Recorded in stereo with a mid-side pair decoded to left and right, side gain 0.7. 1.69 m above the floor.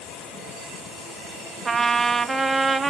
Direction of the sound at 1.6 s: 10° right.